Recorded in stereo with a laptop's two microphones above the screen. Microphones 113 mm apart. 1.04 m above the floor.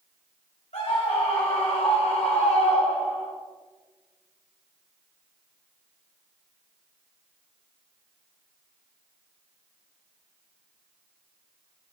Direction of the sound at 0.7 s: 90° left.